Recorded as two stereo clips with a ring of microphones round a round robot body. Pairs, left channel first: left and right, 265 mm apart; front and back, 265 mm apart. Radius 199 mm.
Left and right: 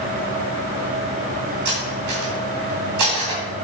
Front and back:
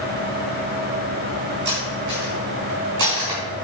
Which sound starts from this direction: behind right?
Cutlery clinking, at 1.6 s.